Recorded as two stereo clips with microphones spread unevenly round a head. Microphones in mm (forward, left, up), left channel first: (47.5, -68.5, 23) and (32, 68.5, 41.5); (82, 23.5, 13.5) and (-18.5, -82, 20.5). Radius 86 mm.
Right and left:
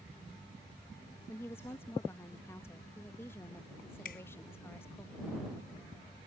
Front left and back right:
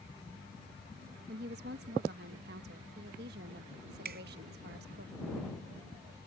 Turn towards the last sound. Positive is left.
turn(degrees=-125)